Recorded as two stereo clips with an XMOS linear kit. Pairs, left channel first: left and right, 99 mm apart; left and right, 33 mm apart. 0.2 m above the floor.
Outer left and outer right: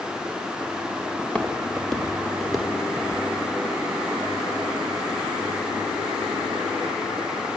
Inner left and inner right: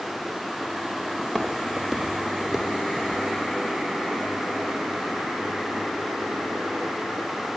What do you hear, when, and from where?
1.2 s footsteps: 10° left (ahead or behind), 2.5 m; by 3.2 s 10° right (ahead or behind), 3 m